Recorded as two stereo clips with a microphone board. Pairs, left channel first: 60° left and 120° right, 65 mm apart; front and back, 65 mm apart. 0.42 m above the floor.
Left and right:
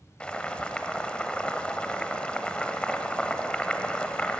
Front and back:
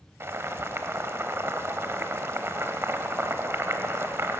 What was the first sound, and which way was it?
Boiling, 135° left.